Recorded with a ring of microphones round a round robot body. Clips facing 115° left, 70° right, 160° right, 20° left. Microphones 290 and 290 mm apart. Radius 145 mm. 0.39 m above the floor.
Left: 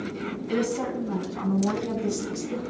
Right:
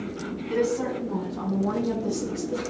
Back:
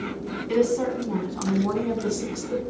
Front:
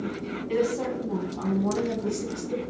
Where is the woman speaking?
135° left, 4 m; by 2.6 s 145° left, 4.5 m.